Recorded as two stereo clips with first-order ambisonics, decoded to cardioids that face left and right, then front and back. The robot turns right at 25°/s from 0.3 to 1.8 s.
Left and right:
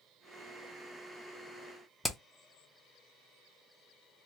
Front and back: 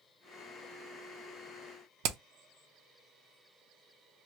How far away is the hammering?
About 0.5 m.